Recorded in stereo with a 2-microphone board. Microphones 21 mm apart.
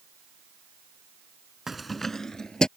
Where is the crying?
I don't hear crying.